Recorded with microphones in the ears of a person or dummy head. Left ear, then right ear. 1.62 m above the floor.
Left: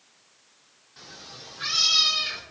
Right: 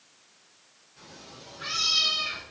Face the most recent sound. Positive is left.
turn(degrees=30)  # may be behind; listen again after turning